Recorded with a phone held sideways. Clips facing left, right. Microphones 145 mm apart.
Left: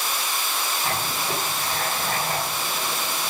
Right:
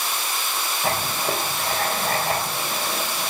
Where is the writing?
80° right, 4 m.